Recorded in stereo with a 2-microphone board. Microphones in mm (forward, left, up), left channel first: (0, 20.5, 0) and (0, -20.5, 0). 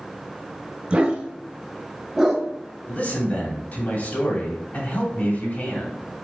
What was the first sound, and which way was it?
A dog barking, 25° right (ahead or behind).